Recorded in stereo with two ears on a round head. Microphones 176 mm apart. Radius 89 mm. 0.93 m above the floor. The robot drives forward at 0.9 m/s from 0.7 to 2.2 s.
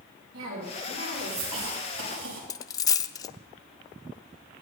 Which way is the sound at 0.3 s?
70° right (ahead or behind).